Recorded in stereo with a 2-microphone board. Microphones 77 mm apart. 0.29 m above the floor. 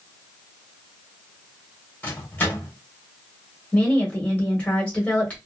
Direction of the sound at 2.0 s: 25° left (ahead or behind).